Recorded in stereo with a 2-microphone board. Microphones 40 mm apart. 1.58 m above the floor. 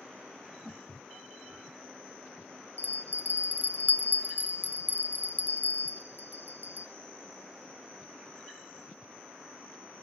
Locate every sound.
0.7 s footsteps: 25° right (ahead or behind), 8.5 m
2.8 s a bell: 50° left (ahead or behind), 1.0 m